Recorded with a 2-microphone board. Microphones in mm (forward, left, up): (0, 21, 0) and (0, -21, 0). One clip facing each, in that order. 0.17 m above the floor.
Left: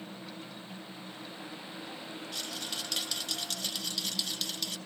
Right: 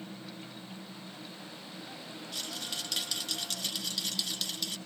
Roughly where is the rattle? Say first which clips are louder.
Right 1 dB; centre.